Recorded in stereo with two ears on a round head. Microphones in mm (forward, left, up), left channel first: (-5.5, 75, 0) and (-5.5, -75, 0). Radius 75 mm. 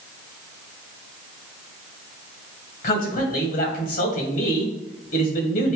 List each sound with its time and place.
2.8 s a man speaking: 55° left (ahead or behind), 2 m